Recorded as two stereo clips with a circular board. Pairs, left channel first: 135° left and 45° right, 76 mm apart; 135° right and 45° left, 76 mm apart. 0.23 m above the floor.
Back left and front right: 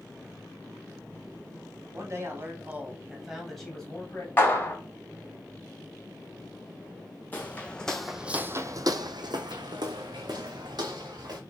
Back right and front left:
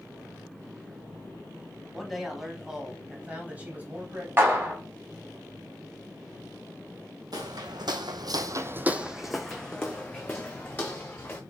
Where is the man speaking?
50° right, 1.3 m; by 4.3 s 90° left, 1.2 m.